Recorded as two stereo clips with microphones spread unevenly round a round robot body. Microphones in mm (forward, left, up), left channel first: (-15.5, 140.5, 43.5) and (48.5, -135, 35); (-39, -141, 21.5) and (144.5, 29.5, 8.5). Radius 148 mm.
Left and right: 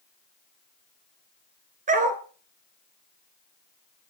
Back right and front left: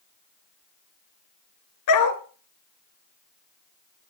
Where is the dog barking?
140° right, 1.2 m.